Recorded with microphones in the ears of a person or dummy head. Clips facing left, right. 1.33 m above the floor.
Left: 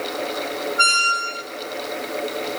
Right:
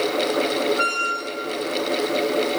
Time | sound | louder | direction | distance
0.8 | a squeak | right 2 dB | 60° left (ahead or behind) | 1.1 m